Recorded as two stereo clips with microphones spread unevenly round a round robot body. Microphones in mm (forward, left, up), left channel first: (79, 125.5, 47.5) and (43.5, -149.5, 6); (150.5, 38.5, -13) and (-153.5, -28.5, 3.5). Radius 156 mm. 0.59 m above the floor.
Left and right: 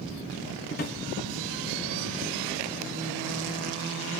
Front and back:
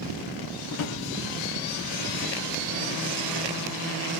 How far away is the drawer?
About 0.5 m.